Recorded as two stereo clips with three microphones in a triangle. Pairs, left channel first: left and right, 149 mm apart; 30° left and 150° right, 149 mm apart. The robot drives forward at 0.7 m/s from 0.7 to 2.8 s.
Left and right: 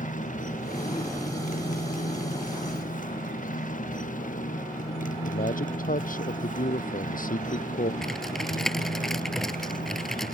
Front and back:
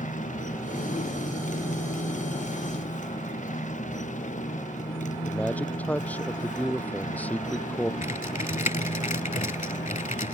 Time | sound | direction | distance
0.0 | a motorcycle | 60° left | ?
5.1 | a man speaking | 110° left | ?
8.0 | typing on a keyboard | 5° left | ?